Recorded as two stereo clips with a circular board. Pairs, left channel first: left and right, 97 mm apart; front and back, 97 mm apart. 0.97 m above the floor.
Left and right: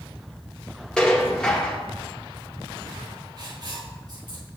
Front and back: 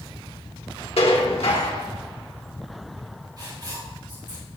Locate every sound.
1.0 s dishes clattering: 10° left, 1.4 m
3.4 s writing: 135° right, 4 m